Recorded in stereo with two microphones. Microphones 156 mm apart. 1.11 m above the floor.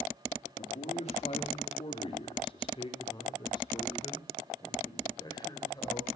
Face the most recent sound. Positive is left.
turn(degrees=25)  # may be behind; listen again after turning